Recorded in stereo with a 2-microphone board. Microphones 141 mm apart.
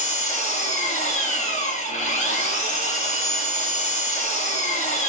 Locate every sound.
0.0 s an engine running: 50° left (ahead or behind), 3.5 m